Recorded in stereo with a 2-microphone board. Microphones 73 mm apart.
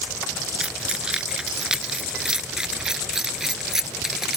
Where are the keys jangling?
15° right (ahead or behind); by 4.4 s 5° right (ahead or behind).